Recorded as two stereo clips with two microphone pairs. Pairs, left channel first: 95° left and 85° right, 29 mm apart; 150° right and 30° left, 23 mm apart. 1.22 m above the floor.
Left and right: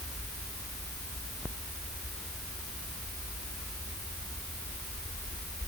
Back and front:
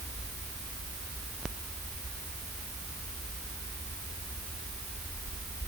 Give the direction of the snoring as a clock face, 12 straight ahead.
I don't hear snoring.